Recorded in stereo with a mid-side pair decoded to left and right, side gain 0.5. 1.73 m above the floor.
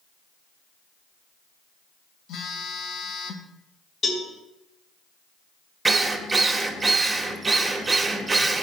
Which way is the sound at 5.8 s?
25° right.